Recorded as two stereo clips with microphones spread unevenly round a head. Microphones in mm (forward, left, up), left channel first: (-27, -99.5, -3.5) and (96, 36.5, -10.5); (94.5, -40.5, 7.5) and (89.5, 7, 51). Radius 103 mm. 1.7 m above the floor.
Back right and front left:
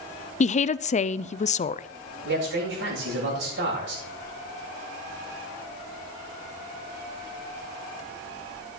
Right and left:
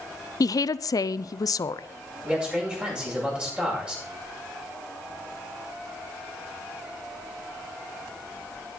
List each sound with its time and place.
0.4 s a woman speaking: 80° right, 0.5 m
2.2 s a man speaking: 35° left, 8 m